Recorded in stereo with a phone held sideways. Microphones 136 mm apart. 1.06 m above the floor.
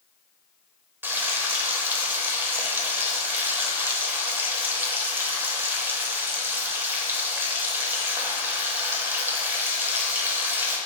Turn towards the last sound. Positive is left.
turn(degrees=-15)  # may be behind; listen again after turning